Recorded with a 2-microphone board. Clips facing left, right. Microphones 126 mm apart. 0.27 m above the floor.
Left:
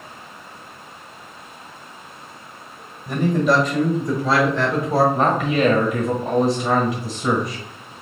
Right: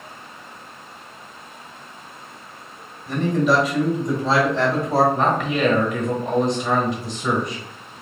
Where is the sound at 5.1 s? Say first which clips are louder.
Left 2 dB; 5° left (ahead or behind), 0.9 m.